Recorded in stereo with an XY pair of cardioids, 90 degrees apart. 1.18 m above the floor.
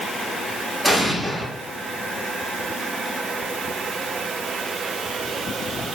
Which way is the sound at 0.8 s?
15° right.